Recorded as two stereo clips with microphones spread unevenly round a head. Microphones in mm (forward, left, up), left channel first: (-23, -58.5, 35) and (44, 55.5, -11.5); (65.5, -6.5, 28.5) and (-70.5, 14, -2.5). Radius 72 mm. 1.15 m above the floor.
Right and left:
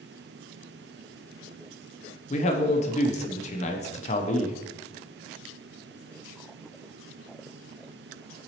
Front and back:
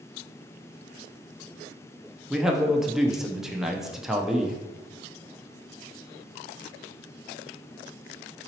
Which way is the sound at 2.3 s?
130° right.